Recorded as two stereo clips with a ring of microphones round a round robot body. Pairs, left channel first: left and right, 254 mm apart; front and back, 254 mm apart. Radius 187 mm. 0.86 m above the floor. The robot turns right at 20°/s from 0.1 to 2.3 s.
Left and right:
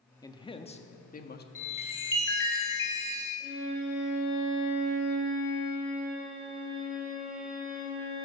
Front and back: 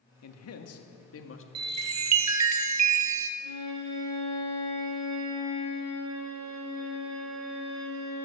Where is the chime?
155° left, 0.9 m; by 3.3 s 170° left, 0.9 m.